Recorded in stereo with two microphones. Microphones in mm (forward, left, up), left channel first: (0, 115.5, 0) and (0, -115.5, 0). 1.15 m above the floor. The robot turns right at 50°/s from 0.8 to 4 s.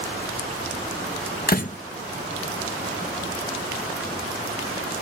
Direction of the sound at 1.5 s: 45° left (ahead or behind).